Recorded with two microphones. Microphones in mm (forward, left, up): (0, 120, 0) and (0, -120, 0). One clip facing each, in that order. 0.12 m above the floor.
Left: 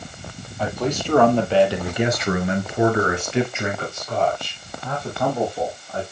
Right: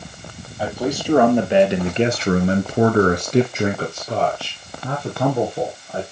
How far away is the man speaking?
About 3 m.